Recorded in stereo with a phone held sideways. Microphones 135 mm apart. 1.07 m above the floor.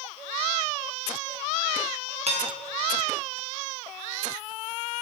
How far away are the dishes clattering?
About 0.8 m.